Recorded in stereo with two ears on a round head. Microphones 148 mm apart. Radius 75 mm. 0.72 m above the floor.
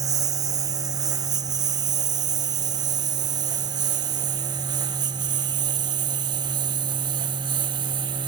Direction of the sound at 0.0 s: 20° right (ahead or behind).